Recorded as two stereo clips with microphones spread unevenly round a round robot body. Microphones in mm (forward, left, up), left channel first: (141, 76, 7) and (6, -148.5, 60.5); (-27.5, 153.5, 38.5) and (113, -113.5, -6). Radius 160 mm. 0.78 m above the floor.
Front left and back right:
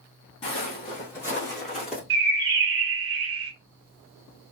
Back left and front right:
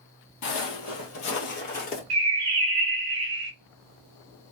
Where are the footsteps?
135° left, 1.5 m; by 2.0 s 170° left, 1.0 m.